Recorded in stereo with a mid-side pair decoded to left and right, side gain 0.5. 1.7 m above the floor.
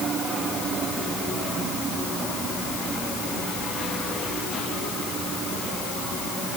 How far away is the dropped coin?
No dropped coin in this recording.